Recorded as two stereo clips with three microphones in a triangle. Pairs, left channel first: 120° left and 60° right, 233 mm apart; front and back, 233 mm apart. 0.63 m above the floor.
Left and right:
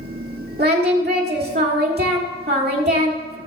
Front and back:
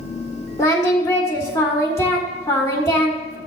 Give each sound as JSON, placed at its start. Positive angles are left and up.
{"t": 0.6, "sound": "singing", "azimuth_deg": -70, "distance_m": 1.6}